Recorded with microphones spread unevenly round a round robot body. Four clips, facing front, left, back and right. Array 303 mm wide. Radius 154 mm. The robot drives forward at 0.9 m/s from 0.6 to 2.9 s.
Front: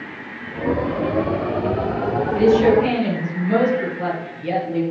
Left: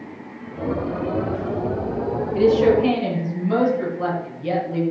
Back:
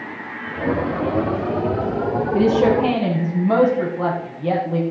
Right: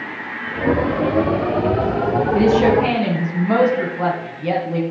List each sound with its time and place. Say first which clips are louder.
2.3 s a woman speaking: even, front 2 dB; 130° right, 3.5 m; by 4.8 s 135° right, 3.5 m